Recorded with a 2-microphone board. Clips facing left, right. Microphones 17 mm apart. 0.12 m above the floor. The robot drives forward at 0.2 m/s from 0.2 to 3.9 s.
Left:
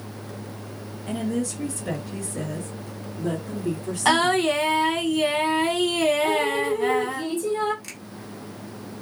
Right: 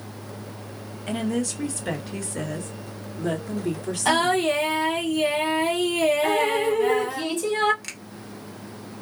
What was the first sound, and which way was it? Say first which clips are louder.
A woman speaking: right 1 dB; 30° right (ahead or behind).